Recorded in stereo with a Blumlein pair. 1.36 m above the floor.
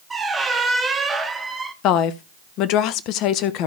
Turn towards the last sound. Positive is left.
turn(degrees=40)